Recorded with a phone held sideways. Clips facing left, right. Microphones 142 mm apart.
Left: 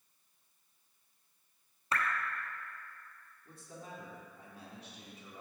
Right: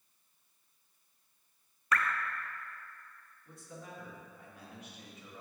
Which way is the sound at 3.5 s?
30° left (ahead or behind).